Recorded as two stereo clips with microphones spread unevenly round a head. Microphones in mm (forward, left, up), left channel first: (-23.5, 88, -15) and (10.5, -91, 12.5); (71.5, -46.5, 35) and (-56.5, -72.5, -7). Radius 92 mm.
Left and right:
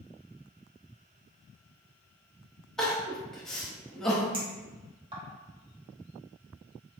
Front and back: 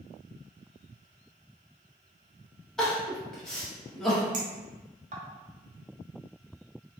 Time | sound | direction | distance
2.8 | crying | 5° right | 0.9 m
4.3 | a clink | 135° right | 1.2 m